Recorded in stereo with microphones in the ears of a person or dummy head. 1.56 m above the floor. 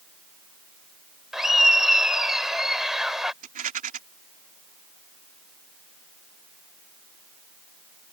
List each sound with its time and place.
1.3 s laughter: 10° right (ahead or behind)
3.4 s a rattle: 35° right (ahead or behind)